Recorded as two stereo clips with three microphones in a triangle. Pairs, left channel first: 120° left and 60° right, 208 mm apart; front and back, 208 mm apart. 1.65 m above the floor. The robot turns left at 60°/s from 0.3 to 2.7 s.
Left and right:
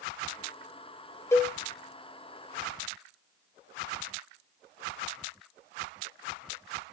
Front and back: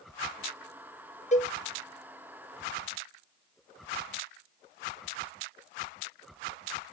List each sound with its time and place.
1.3 s a cowbell: 45° left, 0.6 m; by 1.5 s 30° left, 0.6 m